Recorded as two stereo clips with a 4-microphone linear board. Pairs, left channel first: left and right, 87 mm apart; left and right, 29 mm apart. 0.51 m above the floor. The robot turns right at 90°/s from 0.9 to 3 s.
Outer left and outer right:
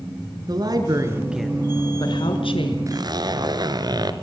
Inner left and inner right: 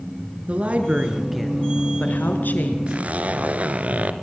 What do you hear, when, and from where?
0.5 s a woman speaking: 50° right, 6 m; by 2.8 s 120° left, 6 m
2.9 s a zipper: 35° right (ahead or behind), 2 m; by 4.1 s 50° right (ahead or behind), 2 m